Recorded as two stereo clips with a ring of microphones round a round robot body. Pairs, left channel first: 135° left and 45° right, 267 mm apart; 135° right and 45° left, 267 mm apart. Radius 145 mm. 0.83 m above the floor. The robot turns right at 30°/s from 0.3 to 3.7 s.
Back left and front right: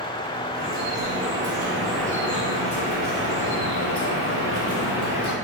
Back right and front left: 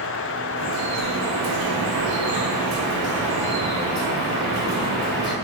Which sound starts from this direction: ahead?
Dripping, at 0.6 s.